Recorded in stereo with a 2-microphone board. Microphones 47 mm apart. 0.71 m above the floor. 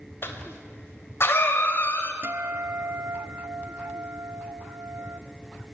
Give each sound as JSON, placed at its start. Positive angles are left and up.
{"t": 0.2, "sound": "a cough", "side_deg": 50, "distance_m": 4.0}
{"t": 2.2, "sound": "a guitar", "side_deg": -55, "distance_m": 0.6}